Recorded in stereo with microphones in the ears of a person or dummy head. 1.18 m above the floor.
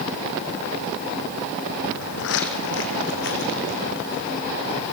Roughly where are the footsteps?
Left.